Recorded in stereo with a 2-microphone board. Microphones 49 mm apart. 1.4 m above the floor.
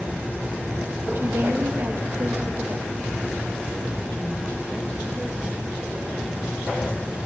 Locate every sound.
1.1 s a woman speaking: 55° right (ahead or behind), 1.7 m